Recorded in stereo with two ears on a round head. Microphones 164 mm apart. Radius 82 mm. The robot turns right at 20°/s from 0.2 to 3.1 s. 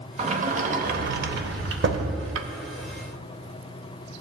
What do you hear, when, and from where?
0.2 s a sliding door: 35° right (ahead or behind), 0.6 m; by 2.5 s 80° right, 0.6 m